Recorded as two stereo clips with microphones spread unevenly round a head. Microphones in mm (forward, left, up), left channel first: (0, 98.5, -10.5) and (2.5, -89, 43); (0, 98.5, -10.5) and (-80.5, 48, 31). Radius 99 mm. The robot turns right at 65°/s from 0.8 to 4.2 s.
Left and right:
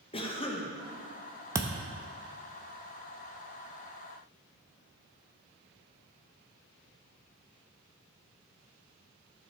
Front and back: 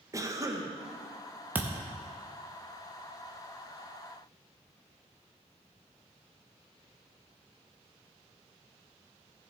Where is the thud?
135° right, 0.7 m; by 1.9 s 110° right, 0.7 m.